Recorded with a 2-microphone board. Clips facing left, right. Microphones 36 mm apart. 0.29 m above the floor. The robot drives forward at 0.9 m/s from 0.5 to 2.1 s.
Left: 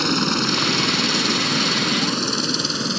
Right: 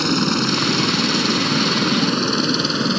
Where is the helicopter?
5° left (ahead or behind); by 3.0 s 15° right (ahead or behind).